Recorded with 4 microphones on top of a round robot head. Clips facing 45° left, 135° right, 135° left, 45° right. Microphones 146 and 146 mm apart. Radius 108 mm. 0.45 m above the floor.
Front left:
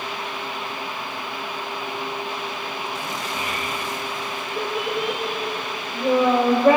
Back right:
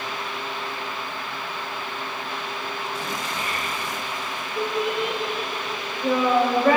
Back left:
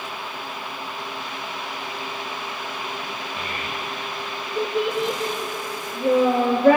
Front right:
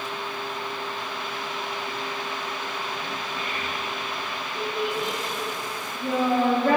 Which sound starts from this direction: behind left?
A child speaking, at 3.4 s.